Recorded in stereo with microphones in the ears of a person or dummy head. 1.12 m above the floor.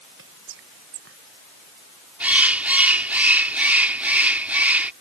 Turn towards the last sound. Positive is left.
turn(degrees=-10)  # may be behind; listen again after turning